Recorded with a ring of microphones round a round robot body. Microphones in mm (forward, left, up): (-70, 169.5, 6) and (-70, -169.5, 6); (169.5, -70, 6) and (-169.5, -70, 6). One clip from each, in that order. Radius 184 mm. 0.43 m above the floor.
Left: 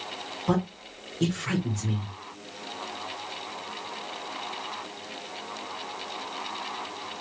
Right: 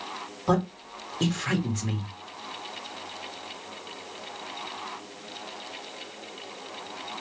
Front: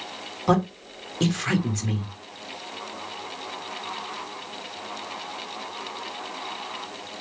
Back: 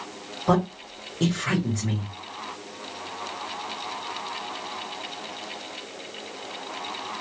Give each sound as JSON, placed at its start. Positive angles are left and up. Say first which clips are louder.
{"t": 0.5, "sound": "a man speaking", "louder": "right 3 dB, even", "azimuth_deg": -40, "distance_m": 1.0}